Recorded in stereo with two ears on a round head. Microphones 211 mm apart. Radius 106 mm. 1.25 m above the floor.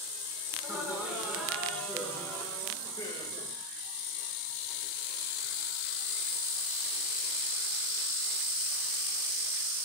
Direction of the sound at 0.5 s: 10° right (ahead or behind).